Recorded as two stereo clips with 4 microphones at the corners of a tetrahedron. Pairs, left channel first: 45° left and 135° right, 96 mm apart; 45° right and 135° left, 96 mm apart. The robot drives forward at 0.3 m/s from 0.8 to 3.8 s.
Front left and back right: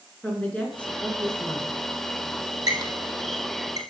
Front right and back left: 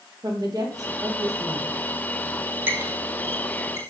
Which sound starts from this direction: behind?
A squeak, at 2.7 s.